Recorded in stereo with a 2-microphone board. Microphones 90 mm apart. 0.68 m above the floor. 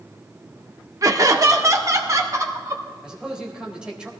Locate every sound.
1.0 s laughter: 40° right (ahead or behind), 1.3 m; by 2.8 s 35° right (ahead or behind), 2.5 m
3.0 s a man speaking: 10° right (ahead or behind), 2.5 m